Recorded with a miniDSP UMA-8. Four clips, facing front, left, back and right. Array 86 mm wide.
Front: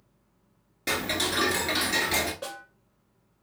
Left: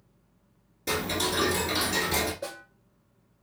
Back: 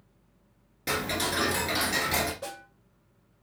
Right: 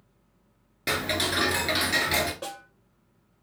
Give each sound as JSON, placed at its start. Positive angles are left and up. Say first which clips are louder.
{"t": 0.9, "sound": "ticking", "louder": "right 1 dB, even", "azimuth_deg": -75, "distance_m": 1.4}
{"t": 2.4, "sound": "a snare drum", "louder": "even, front 1 dB", "azimuth_deg": -60, "distance_m": 3.0}